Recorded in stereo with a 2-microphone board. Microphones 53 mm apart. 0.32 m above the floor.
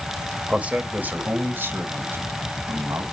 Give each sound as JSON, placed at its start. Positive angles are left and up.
{"t": 0.5, "sound": "a man speaking", "side_deg": -25, "distance_m": 1.3}